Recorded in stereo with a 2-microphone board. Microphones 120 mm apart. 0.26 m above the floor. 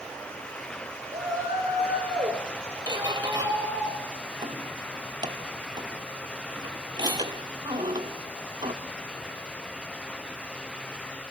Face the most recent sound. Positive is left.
turn(degrees=-40)  # may be behind; listen again after turning